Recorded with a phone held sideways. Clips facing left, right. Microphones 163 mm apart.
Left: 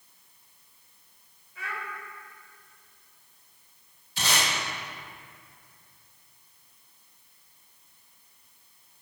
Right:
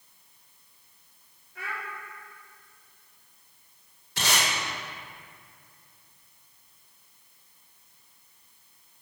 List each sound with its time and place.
1.6 s a child speaking: 60° right (ahead or behind), 2.5 m
4.2 s tape being pulled: 70° right (ahead or behind), 2.5 m